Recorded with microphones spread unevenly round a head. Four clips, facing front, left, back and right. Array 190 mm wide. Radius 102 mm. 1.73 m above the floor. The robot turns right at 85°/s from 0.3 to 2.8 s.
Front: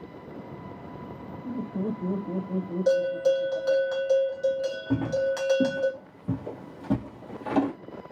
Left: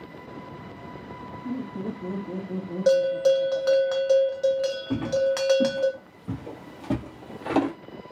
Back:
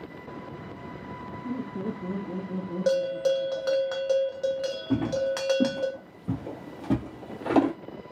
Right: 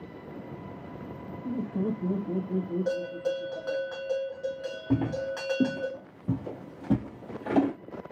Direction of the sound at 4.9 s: 95° right.